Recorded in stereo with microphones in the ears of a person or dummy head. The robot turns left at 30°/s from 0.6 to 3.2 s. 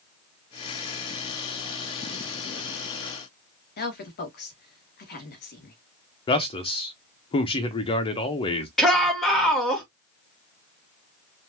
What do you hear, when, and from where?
3.8 s a woman speaking: 50° left (ahead or behind), 2 m
6.3 s a man speaking: 30° left (ahead or behind), 1.1 m
8.8 s a shout: centre (ahead or behind), 2.5 m